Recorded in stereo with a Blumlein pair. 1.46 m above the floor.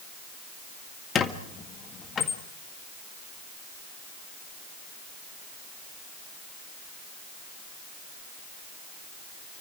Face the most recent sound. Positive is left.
turn(degrees=20)